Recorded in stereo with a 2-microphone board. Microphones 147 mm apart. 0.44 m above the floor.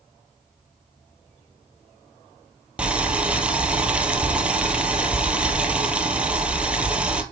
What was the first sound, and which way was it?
Boiling, 5° right (ahead or behind).